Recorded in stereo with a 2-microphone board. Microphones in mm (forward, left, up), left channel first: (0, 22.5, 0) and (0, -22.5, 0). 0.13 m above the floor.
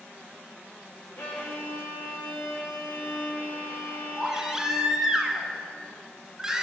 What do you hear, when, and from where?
1.2 s a violin: 70° left (ahead or behind), 3 m
4.2 s a baby crying: 10° right (ahead or behind), 1.1 m